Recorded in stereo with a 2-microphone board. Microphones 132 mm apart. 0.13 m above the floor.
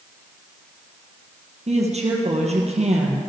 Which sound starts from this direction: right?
A woman speaking, at 1.7 s.